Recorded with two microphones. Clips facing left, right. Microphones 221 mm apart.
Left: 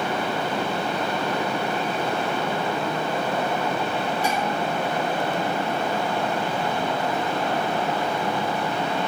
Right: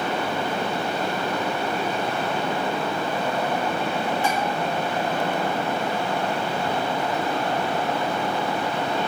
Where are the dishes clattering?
40° left (ahead or behind), 5 m.